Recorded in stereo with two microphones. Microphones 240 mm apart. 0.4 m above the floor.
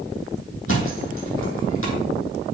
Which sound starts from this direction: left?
A thud, at 0.7 s.